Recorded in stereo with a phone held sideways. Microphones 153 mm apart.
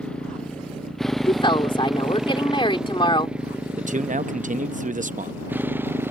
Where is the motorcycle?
5° left (ahead or behind); by 6.1 s 15° right (ahead or behind).